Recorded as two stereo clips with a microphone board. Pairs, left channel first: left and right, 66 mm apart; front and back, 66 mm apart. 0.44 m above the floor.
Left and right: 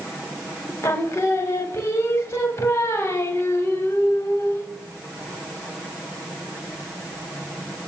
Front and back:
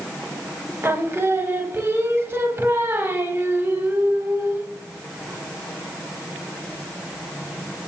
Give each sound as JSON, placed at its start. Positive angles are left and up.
{"t": 0.8, "sound": "singing", "azimuth_deg": 130, "distance_m": 0.6}